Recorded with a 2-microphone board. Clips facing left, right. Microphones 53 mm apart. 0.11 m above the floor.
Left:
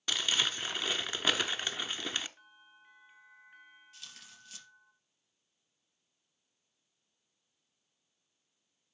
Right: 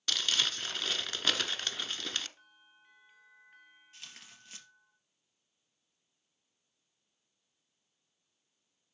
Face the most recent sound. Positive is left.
turn(degrees=-35)  # may be behind; listen again after turning